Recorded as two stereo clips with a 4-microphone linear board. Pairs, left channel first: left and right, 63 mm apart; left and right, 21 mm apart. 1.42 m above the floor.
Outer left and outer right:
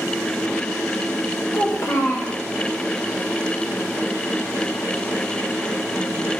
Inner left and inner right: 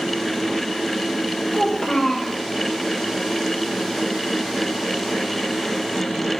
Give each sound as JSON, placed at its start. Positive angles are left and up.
{"t": 1.5, "sound": "a child speaking", "side_deg": 50, "distance_m": 0.6}